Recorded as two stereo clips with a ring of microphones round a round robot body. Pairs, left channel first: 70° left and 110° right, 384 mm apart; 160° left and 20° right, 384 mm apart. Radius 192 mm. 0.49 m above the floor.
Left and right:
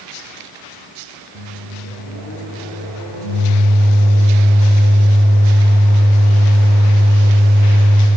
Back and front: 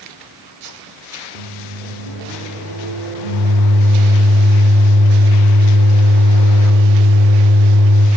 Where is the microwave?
60° right, 1.2 m.